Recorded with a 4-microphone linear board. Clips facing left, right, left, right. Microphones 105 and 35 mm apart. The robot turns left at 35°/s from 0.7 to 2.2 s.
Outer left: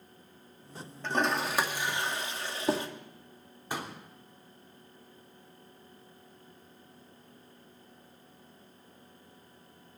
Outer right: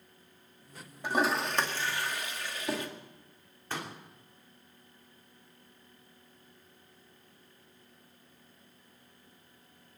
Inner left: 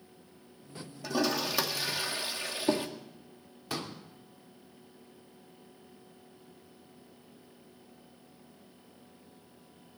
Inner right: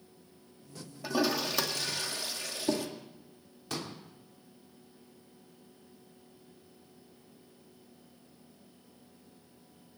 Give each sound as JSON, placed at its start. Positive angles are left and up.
{"t": 1.0, "sound": "a toilet flushing", "side_deg": -10, "distance_m": 1.9}
{"t": 3.7, "sound": "a pop", "side_deg": 15, "distance_m": 3.0}